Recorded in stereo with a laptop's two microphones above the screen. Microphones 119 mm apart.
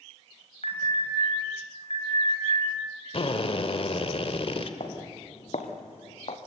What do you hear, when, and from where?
0.6 s an alarm: 60° left (ahead or behind), 4.5 m
3.1 s a drill: 55° left (ahead or behind), 1.3 m
4.8 s footsteps: 60° left (ahead or behind), 3 m